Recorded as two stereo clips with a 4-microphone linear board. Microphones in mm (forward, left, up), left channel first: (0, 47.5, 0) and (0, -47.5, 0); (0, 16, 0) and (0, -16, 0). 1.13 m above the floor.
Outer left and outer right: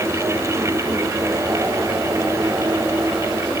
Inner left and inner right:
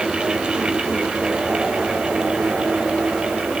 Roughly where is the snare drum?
I don't hear a snare drum.